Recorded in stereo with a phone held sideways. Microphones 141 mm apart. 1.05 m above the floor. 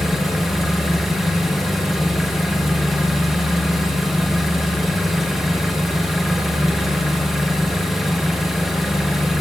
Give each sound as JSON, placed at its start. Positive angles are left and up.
{"t": 0.0, "sound": "an engine running", "side_deg": 0, "distance_m": 1.1}